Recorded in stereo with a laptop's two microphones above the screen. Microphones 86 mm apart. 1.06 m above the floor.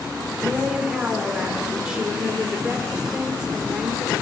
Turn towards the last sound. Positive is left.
turn(degrees=-10)  # may be behind; listen again after turning